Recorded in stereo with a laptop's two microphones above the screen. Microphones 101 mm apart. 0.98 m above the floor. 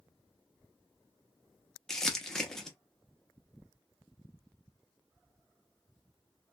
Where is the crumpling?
5° left (ahead or behind), 0.5 m.